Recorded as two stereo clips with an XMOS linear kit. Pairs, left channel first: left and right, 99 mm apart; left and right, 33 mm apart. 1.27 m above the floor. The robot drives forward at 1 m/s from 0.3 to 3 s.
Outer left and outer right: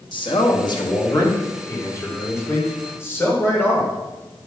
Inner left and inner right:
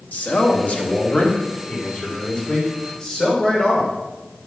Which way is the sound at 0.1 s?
55° left (ahead or behind).